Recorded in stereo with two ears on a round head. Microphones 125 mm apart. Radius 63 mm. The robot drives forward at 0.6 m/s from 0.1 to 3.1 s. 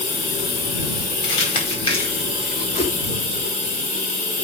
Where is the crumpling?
45° left (ahead or behind), 4.5 m; by 2.6 s 40° left (ahead or behind), 5 m.